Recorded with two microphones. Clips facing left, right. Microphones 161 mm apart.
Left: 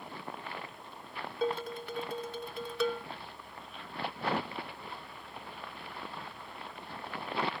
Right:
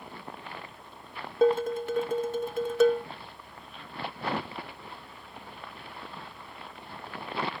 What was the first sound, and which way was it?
Dishes clattering, 45° right (ahead or behind).